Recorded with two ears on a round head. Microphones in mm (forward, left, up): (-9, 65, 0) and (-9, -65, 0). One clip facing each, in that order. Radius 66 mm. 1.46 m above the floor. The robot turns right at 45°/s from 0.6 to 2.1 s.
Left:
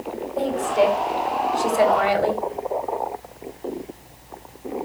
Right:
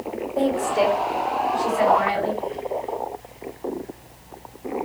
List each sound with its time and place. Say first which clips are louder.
0.4 s a woman speaking: left 1 dB; 15° right (ahead or behind), 5 m; by 2.4 s 50° left (ahead or behind), 5 m